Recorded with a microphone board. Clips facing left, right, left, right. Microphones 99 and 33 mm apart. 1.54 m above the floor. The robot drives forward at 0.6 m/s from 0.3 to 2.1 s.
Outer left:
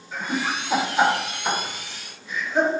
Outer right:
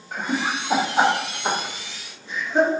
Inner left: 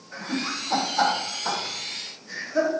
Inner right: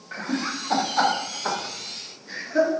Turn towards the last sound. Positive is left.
turn(degrees=-30)  # may be behind; listen again after turning